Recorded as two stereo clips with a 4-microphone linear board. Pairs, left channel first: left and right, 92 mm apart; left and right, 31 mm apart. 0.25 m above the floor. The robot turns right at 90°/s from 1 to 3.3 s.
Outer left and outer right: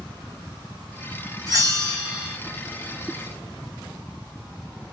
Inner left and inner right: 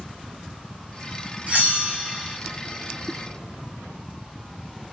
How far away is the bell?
About 1.5 m.